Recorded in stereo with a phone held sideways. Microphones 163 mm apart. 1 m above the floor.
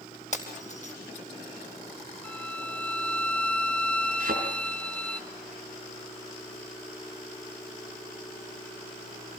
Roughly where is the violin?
Centre.